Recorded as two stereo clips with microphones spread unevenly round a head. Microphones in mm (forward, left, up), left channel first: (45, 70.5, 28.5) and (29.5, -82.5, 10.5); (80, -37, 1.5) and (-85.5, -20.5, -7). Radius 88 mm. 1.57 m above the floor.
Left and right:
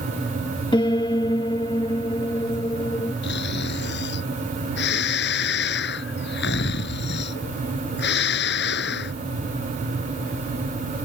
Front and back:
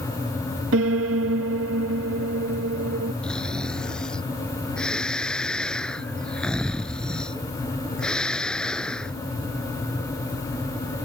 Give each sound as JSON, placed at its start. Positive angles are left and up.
{"t": 0.7, "sound": "a piano", "azimuth_deg": 150}
{"t": 3.2, "sound": "snoring", "azimuth_deg": 80}